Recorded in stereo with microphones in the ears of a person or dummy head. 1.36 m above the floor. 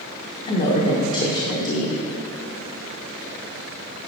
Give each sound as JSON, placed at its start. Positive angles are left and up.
{"t": 0.5, "sound": "a woman speaking", "side_deg": 40, "distance_m": 1.1}